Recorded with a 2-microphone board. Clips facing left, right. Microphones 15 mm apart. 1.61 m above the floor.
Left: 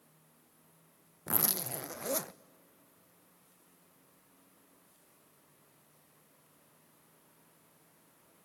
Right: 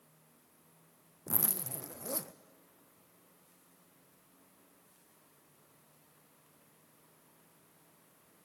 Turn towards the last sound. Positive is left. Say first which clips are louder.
# left 4 dB
turn(degrees=75)  # may be behind; listen again after turning